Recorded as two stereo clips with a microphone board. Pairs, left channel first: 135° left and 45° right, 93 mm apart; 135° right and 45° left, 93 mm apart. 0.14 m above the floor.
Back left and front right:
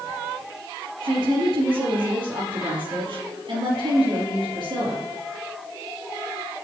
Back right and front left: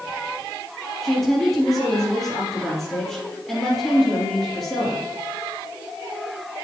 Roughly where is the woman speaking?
Ahead right.